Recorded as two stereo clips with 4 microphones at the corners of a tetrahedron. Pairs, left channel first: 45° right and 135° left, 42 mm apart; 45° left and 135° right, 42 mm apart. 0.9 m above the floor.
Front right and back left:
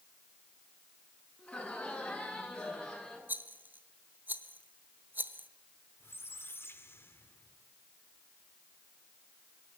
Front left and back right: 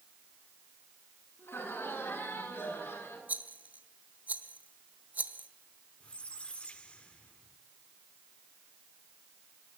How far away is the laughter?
About 9.5 m.